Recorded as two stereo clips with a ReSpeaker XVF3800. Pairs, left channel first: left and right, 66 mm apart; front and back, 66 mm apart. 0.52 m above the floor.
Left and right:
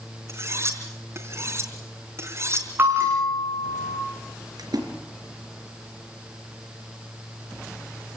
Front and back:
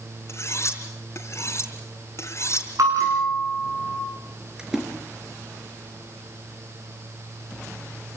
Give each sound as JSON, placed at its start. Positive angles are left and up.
{"t": 0.3, "sound": "cutlery clinking", "azimuth_deg": -45, "distance_m": 3.5}
{"t": 2.8, "sound": "a bell", "azimuth_deg": -145, "distance_m": 7.5}
{"t": 4.6, "sound": "a splash", "azimuth_deg": -100, "distance_m": 4.0}